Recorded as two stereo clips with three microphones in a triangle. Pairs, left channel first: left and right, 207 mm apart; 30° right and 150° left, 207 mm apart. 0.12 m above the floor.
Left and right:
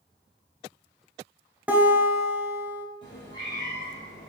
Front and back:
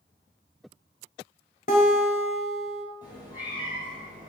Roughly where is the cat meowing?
Left.